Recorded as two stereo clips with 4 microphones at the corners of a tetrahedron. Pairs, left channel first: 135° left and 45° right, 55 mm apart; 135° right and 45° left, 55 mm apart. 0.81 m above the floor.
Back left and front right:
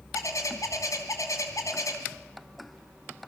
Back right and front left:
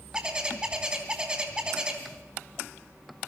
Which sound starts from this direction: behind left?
A bird, at 0.1 s.